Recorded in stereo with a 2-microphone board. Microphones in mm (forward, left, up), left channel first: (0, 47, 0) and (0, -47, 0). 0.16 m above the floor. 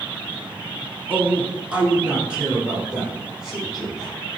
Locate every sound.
1.1 s a man speaking: 15° right (ahead or behind), 1.1 m; by 4.1 s 5° right (ahead or behind), 5 m